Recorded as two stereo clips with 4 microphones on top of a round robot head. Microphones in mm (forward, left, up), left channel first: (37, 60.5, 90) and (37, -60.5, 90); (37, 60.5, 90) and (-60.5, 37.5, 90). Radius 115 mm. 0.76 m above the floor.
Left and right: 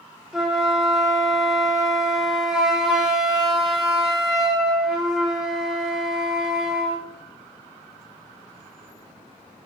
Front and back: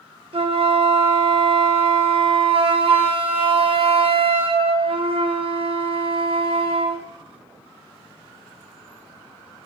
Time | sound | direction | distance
0.3 | a flute | 175° right | 0.6 m